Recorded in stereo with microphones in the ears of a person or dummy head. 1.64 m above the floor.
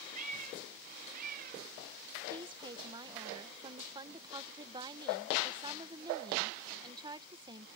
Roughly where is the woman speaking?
Right.